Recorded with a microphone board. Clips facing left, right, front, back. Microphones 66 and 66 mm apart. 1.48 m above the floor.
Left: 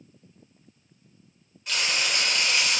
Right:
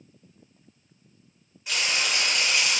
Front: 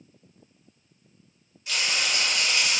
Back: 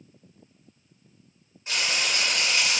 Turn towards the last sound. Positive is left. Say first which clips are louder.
# even, even
turn(degrees=-170)